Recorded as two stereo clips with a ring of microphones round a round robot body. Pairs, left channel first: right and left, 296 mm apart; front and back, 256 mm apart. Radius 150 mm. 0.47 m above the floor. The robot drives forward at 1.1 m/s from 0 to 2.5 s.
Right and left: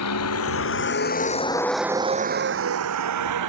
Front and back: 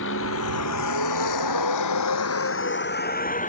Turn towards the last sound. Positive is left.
turn(degrees=60)